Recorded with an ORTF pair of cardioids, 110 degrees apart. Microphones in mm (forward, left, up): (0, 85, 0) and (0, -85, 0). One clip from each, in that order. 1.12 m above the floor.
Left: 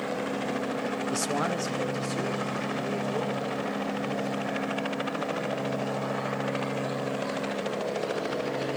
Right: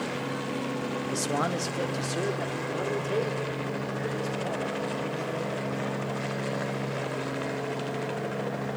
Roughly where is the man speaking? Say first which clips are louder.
Right 1 dB; ahead.